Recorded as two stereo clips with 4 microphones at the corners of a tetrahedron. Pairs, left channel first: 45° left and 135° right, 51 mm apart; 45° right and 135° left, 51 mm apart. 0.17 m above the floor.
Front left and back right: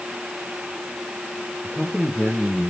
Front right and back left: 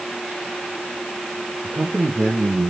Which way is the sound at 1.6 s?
135° left.